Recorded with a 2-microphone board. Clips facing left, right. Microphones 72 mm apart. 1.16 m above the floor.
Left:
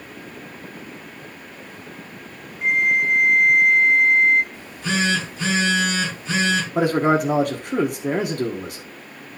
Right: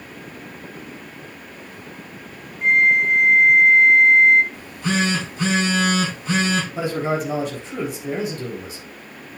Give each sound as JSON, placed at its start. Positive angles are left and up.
{"t": 2.6, "sound": "a flute", "side_deg": 5, "distance_m": 1.2}
{"t": 4.5, "sound": "a phone buzzing", "side_deg": -50, "distance_m": 4.5}
{"t": 6.8, "sound": "a man speaking", "side_deg": 60, "distance_m": 1.1}